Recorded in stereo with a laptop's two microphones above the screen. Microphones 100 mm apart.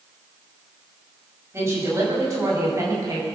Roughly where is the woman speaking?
Right.